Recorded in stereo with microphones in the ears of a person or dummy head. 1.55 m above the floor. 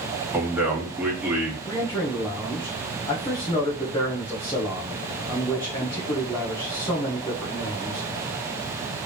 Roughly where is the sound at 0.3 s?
Centre.